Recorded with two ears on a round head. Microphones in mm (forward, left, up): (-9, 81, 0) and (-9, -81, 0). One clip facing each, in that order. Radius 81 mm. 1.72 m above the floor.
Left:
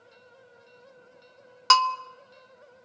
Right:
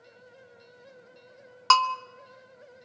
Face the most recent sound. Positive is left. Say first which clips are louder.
# left 1 dB
turn(degrees=10)  # may be behind; listen again after turning